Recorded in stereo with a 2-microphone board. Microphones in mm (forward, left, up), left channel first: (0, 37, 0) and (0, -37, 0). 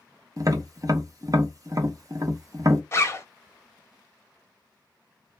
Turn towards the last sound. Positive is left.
turn(degrees=35)  # may be behind; listen again after turning